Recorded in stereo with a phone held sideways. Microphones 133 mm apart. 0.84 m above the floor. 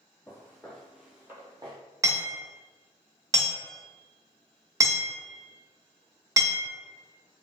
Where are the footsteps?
20° left (ahead or behind), 1.2 m; by 1.8 s 35° right (ahead or behind), 1.0 m.